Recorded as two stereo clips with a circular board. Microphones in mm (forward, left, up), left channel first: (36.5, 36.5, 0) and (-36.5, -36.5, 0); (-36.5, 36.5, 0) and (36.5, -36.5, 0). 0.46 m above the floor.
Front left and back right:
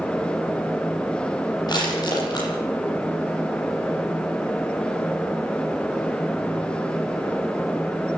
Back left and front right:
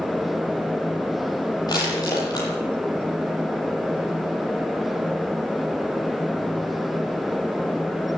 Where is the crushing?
90° left, 10 m.